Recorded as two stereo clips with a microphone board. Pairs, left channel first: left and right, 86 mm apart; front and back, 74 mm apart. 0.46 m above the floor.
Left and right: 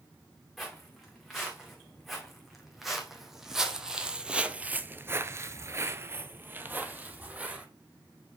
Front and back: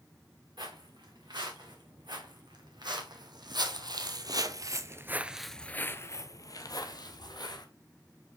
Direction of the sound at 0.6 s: Straight behind.